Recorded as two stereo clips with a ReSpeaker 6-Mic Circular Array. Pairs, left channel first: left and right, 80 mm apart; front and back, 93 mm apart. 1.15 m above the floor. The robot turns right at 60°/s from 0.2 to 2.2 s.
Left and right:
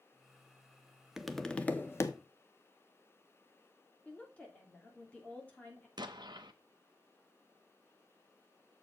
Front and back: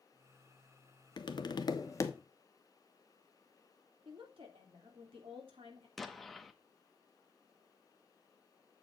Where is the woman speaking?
165° left, 2.5 m.